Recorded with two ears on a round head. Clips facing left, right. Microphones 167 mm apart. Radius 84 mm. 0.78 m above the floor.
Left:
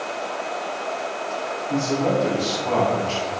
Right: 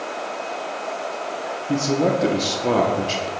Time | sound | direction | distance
1.7 | a man speaking | 65° right (ahead or behind) | 1.2 m